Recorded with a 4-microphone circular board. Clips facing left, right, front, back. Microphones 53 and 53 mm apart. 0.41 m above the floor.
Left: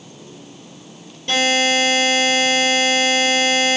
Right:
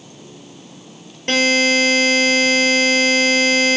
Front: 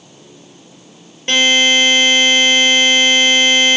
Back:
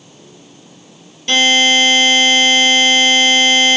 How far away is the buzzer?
About 3 m.